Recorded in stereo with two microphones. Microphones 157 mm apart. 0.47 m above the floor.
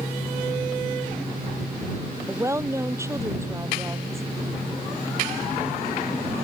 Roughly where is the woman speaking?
Centre.